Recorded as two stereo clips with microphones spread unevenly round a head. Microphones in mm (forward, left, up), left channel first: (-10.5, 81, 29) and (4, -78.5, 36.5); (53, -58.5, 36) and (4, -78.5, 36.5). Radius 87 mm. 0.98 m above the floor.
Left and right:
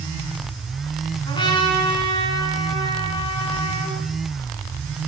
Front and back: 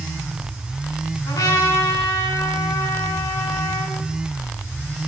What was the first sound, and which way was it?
A trumpet, 30° left.